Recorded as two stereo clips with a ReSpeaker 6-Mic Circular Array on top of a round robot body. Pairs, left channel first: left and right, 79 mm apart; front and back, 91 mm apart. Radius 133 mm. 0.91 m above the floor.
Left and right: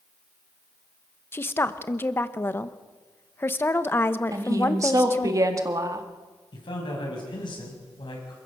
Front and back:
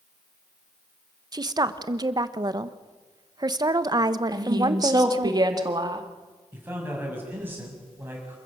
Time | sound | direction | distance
1.3 | a woman speaking | 145° left | 1.2 m
4.3 | a woman speaking | 135° right | 2 m
6.5 | a man speaking | 110° left | 6.5 m